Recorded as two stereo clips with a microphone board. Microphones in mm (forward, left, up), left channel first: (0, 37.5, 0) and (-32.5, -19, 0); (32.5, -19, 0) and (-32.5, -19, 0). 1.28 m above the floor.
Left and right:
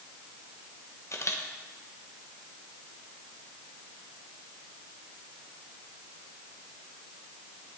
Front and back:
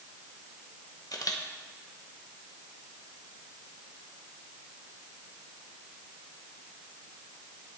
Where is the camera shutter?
20° left, 1.5 m.